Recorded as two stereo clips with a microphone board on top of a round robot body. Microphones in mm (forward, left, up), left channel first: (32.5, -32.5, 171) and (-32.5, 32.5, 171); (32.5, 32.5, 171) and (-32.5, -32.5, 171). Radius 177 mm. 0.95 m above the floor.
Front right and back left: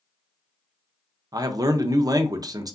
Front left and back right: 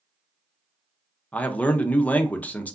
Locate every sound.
1.3 s a man speaking: 115° left, 0.7 m